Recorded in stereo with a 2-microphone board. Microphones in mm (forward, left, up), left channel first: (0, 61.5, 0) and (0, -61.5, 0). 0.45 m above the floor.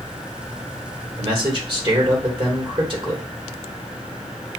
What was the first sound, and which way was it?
A man speaking, 45° right (ahead or behind).